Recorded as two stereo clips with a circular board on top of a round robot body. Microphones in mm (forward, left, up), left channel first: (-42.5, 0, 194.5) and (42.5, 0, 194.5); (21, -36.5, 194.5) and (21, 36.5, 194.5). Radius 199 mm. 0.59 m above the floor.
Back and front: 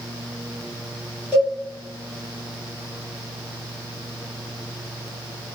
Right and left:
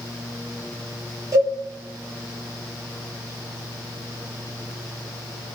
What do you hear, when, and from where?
1.3 s a cowbell: 60° left, 1.8 m